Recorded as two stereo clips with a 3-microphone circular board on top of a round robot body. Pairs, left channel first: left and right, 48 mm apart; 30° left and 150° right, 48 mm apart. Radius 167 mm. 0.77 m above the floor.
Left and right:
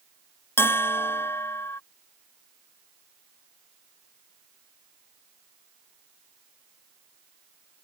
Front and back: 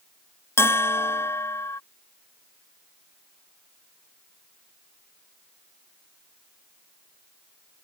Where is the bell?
60° left.